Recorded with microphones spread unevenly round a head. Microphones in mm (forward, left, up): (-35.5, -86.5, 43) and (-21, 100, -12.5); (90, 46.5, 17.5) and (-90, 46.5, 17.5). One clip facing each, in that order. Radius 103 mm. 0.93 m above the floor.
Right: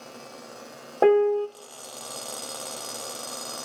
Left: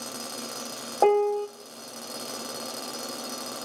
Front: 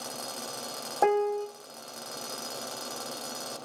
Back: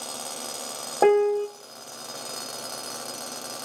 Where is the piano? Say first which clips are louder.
Right 3 dB, back 7 dB; straight behind, 0.6 m.